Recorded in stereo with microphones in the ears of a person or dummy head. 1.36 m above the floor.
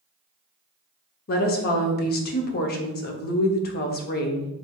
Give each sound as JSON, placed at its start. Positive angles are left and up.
{"t": 1.3, "sound": "a woman speaking", "side_deg": 50, "distance_m": 0.7}